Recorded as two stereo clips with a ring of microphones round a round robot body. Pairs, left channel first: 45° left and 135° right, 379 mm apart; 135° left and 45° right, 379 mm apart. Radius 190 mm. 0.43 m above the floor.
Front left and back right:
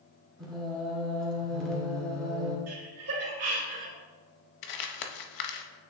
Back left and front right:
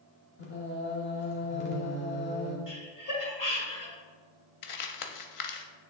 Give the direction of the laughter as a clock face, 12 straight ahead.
6 o'clock.